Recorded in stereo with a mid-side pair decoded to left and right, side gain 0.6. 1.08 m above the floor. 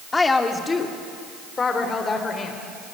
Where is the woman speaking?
20° left, 2.5 m; by 2.6 s 30° left, 3.5 m.